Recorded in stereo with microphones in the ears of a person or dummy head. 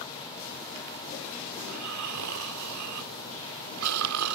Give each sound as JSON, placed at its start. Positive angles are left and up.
{"t": 1.6, "sound": "snoring", "side_deg": -80}